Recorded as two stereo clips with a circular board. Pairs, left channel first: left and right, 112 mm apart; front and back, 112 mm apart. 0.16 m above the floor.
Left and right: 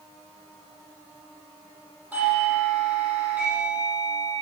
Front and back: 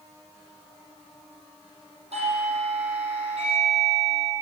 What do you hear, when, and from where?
2.1 s a doorbell: 165° right, 8.5 m